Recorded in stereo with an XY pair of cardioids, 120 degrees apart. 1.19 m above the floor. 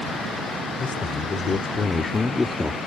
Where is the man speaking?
40° left; by 2.8 s 25° left.